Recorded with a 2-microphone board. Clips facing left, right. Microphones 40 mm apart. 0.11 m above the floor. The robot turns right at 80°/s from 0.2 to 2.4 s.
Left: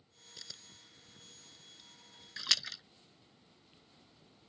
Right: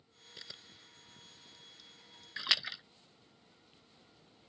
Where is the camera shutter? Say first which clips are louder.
Right 1 dB; 20° right (ahead or behind); by 2.3 s 20° left (ahead or behind).